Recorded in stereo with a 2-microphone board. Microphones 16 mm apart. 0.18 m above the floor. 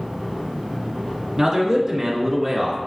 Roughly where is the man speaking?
Right.